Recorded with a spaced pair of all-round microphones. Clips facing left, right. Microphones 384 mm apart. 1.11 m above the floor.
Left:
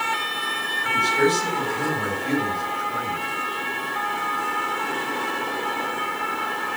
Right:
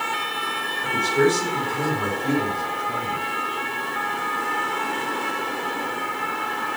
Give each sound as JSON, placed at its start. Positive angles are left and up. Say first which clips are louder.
{"t": 0.8, "sound": "a man speaking", "louder": "right 2 dB", "side_deg": -60, "distance_m": 5.5}